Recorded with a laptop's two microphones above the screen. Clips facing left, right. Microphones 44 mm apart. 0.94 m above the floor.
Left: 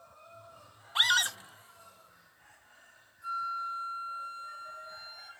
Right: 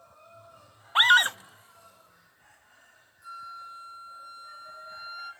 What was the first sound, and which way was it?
A scream, 35° right (ahead or behind).